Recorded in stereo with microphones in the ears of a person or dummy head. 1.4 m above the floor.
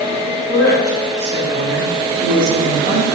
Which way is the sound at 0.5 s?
55° right (ahead or behind).